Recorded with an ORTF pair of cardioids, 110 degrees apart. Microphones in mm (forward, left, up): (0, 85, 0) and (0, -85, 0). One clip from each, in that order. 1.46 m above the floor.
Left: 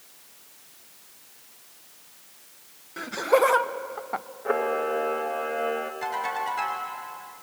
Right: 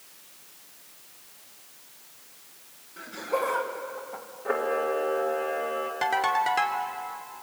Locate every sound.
3.0 s laughter: 50° left, 1.8 m; by 4.2 s 60° left, 0.5 m
4.5 s a camera shutter: 15° left, 2.5 m
6.0 s a ringtone: 65° right, 3 m